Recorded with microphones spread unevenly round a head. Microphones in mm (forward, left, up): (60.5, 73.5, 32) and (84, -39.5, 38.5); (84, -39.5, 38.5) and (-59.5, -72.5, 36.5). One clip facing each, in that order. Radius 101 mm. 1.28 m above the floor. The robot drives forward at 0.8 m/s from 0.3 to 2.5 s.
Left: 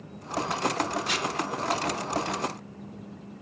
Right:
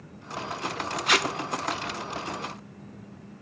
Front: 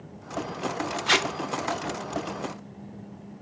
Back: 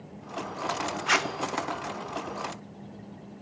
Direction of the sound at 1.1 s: 45° right.